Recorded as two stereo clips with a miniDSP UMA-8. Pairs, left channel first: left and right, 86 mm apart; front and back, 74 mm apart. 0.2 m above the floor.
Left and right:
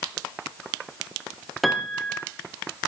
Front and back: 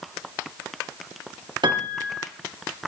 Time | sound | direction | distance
1.6 | a piano | straight behind | 3.5 m